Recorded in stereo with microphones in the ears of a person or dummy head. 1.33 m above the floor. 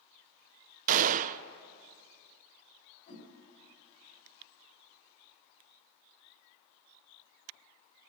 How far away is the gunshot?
About 0.6 m.